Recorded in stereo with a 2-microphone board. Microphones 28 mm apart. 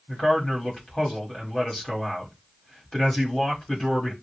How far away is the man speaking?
About 1.6 m.